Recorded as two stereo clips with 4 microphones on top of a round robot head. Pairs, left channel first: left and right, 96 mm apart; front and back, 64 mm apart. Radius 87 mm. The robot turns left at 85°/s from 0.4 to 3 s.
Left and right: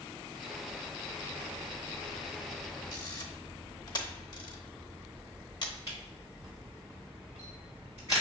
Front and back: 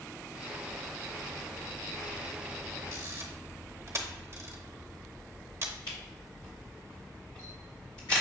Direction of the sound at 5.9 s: 20° right.